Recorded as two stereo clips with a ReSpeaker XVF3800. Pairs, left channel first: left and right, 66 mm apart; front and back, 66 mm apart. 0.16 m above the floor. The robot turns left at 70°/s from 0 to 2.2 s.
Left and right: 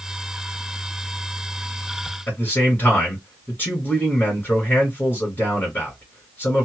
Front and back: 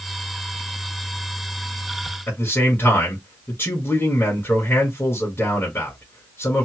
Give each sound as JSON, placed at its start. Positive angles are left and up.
{"t": 2.3, "sound": "a man speaking", "azimuth_deg": 45, "distance_m": 1.6}